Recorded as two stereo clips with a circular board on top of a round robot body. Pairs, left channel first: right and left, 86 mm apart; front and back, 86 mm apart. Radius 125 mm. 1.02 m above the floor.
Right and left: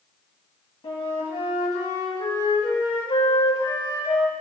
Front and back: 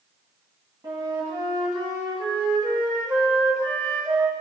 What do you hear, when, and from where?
0.8 s a flute: 125° right, 2 m